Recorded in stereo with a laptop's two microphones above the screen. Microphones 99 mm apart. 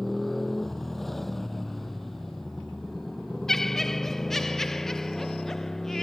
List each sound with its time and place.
0.0 s a motorcycle: centre (ahead or behind)
3.5 s laughter: 5° left (ahead or behind)